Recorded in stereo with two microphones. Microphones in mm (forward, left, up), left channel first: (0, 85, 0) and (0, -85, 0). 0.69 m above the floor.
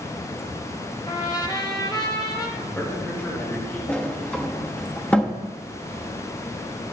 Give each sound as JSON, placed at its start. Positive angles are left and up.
{"t": 1.1, "sound": "a trumpet", "side_deg": 25, "distance_m": 1.2}
{"t": 2.6, "sound": "a man speaking", "side_deg": 10, "distance_m": 3.5}
{"t": 3.9, "sound": "a sliding door", "side_deg": 5, "distance_m": 0.9}